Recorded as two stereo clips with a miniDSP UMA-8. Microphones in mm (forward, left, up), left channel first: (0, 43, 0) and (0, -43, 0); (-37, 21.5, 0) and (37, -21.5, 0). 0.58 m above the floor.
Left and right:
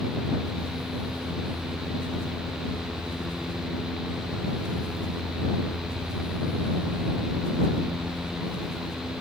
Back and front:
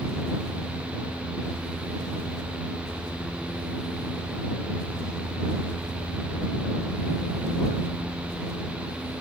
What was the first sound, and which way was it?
Only background noise.